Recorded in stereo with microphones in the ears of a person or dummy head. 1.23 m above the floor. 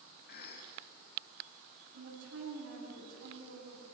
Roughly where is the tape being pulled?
No tape being pulled in this recording.